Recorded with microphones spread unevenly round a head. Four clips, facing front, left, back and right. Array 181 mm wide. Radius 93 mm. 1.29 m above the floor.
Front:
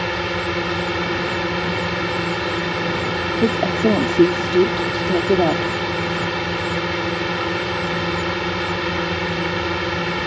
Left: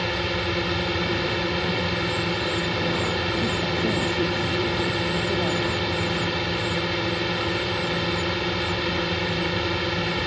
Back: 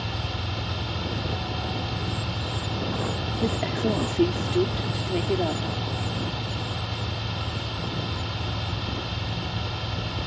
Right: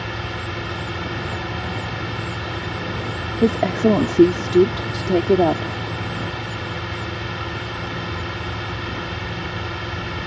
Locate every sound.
0.0 s a drone: 20° left
3.4 s a woman speaking: 55° right